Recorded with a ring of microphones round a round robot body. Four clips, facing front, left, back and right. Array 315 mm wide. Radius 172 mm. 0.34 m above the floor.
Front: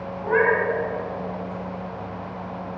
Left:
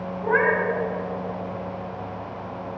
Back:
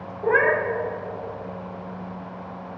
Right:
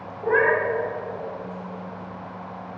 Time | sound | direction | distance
0.2 | a cat meowing | 175° right | 1.1 m